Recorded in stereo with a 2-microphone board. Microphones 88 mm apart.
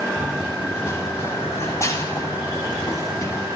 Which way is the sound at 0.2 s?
30° left (ahead or behind).